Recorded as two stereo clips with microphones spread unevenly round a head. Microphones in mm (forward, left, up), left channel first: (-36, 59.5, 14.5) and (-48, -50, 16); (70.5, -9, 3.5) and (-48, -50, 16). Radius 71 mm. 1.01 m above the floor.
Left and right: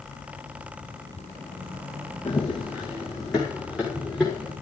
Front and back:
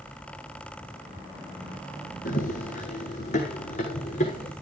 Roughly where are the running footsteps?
Ahead.